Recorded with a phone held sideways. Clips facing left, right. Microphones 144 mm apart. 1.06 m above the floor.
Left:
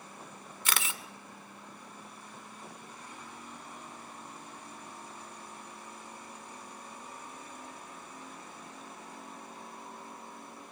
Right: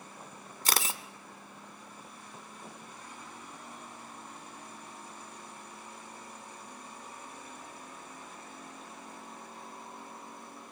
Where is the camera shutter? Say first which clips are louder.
Right 3 dB; 35° right (ahead or behind), 1.2 m.